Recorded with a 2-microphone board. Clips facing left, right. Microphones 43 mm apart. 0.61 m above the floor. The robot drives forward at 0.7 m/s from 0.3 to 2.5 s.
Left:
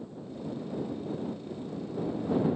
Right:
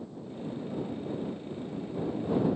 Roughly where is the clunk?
No clunk in this recording.